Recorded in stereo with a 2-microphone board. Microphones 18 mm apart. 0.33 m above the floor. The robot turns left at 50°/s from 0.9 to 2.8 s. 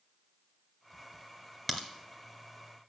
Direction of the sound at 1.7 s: Centre (ahead or behind).